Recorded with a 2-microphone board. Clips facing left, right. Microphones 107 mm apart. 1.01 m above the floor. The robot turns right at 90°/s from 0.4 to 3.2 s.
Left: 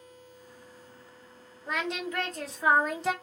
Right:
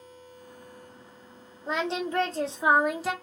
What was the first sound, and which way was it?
Singing, 130° right.